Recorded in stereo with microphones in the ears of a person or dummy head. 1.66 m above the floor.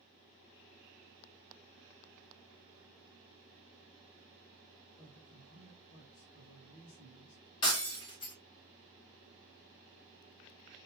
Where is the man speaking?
40° left (ahead or behind), 1.2 m.